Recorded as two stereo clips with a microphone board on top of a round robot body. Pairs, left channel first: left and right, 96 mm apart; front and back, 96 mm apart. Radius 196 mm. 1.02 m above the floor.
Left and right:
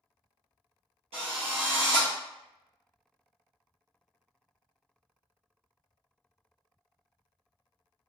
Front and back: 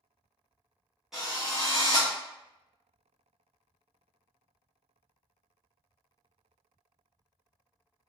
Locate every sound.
1.1 s a drill: 95° right, 0.6 m